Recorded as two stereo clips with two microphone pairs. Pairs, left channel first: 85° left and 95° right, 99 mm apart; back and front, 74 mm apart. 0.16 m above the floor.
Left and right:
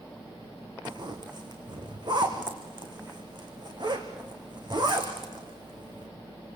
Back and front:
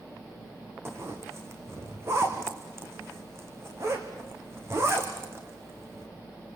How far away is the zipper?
About 3.5 m.